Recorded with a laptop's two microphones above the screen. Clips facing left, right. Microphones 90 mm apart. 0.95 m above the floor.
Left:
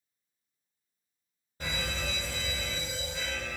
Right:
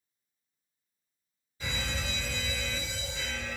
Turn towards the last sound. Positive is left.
turn(degrees=50)  # may be behind; listen again after turning